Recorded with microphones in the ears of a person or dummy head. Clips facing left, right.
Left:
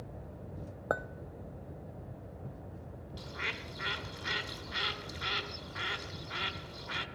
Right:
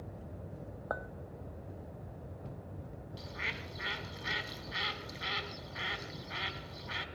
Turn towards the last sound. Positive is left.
turn(degrees=-5)  # may be behind; listen again after turning